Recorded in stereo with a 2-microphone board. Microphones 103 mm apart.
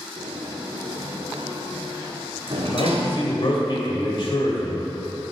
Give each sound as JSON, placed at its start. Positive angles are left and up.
{"t": 0.2, "sound": "a sliding door", "side_deg": -75, "distance_m": 1.4}
{"t": 2.7, "sound": "a man speaking", "side_deg": 55, "distance_m": 2.0}